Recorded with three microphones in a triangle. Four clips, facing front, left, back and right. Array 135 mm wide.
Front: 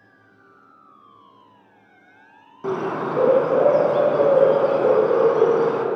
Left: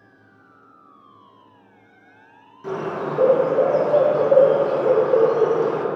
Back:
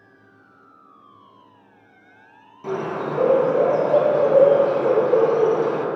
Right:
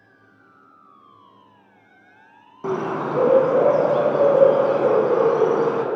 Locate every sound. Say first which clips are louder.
2.6 s a bird: right 2 dB, front 1 dB; 65° right, 1.6 m